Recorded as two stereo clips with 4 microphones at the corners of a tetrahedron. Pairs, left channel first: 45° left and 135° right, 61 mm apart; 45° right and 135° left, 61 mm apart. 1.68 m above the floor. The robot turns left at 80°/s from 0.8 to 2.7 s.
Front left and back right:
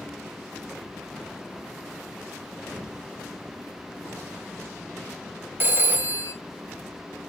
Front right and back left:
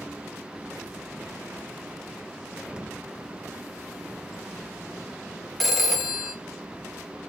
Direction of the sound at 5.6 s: 135° right.